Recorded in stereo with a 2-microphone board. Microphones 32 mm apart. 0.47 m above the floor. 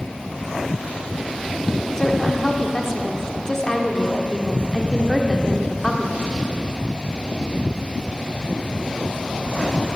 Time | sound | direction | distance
2.0 | a woman speaking | 15° left (ahead or behind) | 1.2 m